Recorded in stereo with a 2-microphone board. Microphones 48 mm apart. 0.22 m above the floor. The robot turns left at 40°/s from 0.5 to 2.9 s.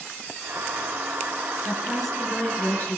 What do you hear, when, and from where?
1.6 s a woman speaking: 170° right, 4 m; by 3.0 s 140° left, 4 m